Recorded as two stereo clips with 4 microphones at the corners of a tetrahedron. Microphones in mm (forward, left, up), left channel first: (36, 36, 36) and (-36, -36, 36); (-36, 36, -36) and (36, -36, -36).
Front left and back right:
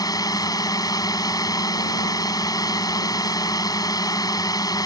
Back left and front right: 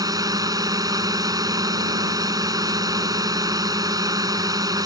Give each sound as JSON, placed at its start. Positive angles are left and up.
{"t": 0.0, "sound": "a drone", "azimuth_deg": 0}